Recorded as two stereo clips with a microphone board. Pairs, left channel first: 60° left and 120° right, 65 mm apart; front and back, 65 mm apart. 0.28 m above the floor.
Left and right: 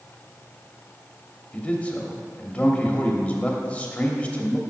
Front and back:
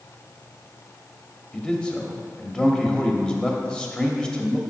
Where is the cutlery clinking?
I don't hear cutlery clinking.